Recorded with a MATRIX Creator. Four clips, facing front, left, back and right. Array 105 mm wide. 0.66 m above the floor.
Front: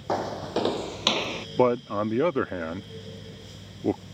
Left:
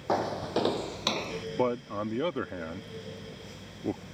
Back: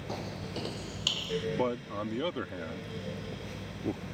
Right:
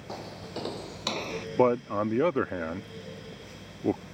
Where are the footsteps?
40° left; by 1.5 s 20° right.